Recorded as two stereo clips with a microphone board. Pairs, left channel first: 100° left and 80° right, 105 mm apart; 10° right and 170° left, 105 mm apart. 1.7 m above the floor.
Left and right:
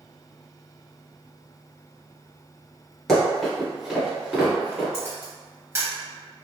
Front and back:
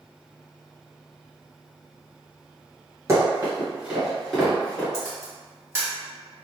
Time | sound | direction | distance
3.1 | running footsteps | straight behind | 1.8 m
4.9 | a camera shutter | 135° right | 1.4 m